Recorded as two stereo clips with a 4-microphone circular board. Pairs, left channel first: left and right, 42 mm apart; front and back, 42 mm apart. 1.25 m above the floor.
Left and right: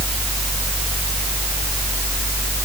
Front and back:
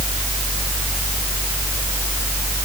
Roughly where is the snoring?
No snoring in this recording.